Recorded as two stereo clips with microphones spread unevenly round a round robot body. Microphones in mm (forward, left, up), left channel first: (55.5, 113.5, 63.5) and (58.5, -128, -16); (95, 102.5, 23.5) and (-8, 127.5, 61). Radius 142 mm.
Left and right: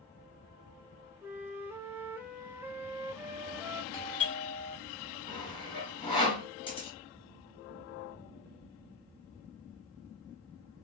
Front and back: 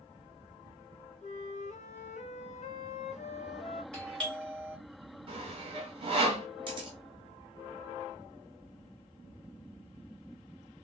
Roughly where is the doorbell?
Ahead left.